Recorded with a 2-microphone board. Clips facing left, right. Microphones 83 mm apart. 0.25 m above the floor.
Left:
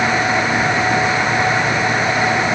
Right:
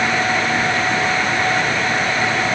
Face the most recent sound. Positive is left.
No sound to turn to.